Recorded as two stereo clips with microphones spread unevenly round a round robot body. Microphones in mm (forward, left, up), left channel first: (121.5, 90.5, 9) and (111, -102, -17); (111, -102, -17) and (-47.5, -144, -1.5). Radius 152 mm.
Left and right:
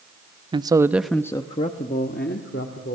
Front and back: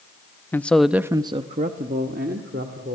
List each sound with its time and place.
0.5 s a man speaking: 50° right, 0.8 m; by 3.0 s 145° left, 1.8 m